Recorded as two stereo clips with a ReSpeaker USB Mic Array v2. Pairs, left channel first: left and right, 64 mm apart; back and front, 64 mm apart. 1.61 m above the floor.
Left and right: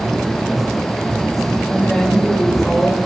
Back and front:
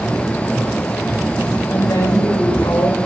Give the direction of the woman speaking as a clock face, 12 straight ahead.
6 o'clock.